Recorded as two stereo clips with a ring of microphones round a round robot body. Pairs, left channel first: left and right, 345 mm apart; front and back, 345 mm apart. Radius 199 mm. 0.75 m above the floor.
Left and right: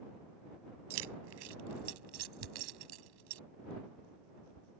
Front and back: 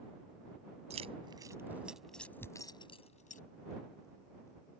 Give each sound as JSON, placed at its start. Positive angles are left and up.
{"t": 0.9, "sound": "keys jangling", "azimuth_deg": -105}
{"t": 2.4, "sound": "tearing paper", "azimuth_deg": -85}